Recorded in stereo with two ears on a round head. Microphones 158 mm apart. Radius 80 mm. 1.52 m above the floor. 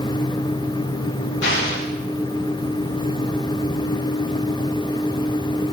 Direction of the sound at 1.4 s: 75° left (ahead or behind).